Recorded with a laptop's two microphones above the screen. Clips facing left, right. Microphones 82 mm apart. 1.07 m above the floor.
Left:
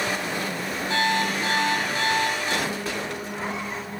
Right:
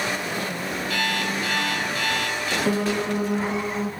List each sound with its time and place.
0.9 s an alarm clock: 30° left (ahead or behind), 4 m
2.6 s a piano: 80° right, 1.3 m